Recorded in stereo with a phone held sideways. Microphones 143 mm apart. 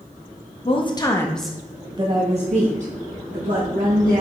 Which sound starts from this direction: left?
A woman speaking, at 0.7 s.